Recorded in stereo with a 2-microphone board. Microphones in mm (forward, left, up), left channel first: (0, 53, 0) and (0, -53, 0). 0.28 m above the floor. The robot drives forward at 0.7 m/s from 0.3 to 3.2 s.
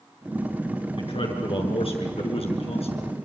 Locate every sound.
1.0 s a man speaking: 55° left (ahead or behind), 5 m; by 3.1 s 70° left (ahead or behind), 4.5 m